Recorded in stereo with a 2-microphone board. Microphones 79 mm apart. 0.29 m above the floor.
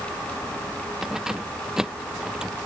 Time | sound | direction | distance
1.0 | keys jangling | 5° right (ahead or behind) | ?